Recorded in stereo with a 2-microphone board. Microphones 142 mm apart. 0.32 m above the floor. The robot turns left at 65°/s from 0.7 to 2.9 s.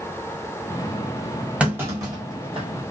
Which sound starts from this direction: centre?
A clunk, at 1.6 s.